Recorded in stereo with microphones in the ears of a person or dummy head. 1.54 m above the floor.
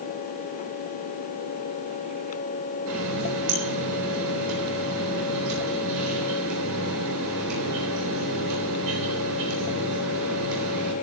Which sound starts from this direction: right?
A running tap, at 2.9 s.